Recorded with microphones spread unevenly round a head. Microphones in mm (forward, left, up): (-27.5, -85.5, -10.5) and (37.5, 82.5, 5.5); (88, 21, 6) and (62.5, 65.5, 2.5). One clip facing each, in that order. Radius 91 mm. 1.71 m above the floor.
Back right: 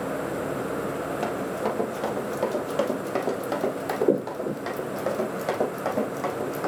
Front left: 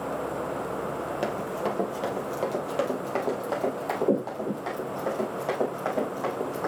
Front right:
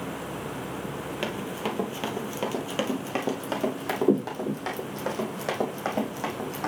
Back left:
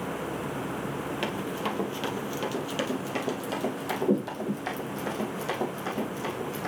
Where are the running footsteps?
15° left, 1.9 m; by 6.7 s 50° right, 4 m.